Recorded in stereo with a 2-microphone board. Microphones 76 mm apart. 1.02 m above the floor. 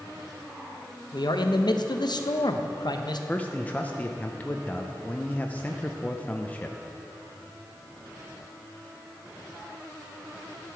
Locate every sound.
1.1 s a man speaking: 65° left (ahead or behind), 0.7 m
3.3 s a man speaking: 20° left (ahead or behind), 0.5 m